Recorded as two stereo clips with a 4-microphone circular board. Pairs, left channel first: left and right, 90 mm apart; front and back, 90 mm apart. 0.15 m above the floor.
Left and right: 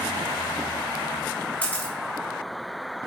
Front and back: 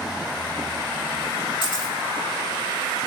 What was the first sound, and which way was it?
A camera shutter, 15° left.